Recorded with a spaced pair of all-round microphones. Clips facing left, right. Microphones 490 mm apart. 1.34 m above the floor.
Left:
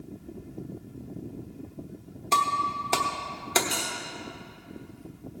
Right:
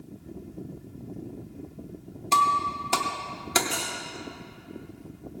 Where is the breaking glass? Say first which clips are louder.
Right 1 dB; 30° right (ahead or behind), 1.0 m.